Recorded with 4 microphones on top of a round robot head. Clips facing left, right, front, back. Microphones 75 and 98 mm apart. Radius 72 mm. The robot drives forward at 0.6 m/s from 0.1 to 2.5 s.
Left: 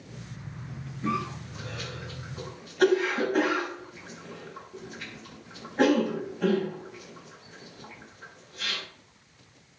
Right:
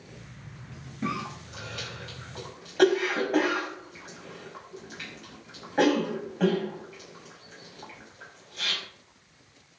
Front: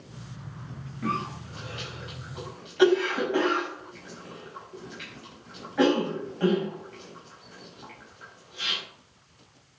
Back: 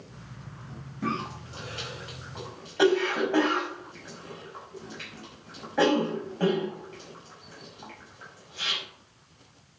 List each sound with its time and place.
1.0 s a cough: 110° right, 4.5 m; by 8.8 s 120° right, 5 m